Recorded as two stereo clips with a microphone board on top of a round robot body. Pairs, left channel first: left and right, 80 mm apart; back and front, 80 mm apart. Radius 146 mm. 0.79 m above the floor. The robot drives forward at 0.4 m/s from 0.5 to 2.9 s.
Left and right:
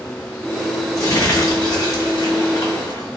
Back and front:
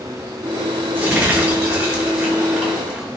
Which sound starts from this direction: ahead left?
Crumpling, at 0.9 s.